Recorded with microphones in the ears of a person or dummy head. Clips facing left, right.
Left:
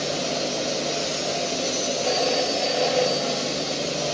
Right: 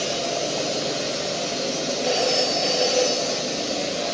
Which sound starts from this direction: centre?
A phone ringing, at 2.0 s.